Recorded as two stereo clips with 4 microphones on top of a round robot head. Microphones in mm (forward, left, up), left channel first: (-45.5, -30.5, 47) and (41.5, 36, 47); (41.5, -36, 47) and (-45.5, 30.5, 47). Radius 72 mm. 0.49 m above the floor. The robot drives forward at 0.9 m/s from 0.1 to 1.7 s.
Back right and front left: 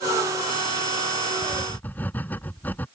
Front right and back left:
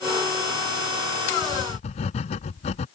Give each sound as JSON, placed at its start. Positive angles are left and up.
{"t": 1.4, "sound": "writing", "azimuth_deg": -65}